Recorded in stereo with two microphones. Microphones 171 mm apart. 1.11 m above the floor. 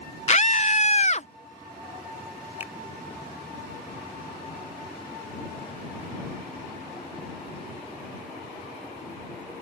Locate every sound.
0.3 s a scream: 40° left (ahead or behind)
2.6 s a finger snap: 10° right (ahead or behind)